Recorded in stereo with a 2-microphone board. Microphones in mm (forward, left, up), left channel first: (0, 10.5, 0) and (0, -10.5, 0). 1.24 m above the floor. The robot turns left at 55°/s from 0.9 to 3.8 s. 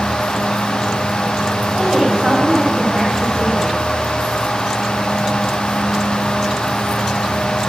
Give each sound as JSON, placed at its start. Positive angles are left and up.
{"t": 1.8, "sound": "a woman speaking", "azimuth_deg": -85, "distance_m": 9.0}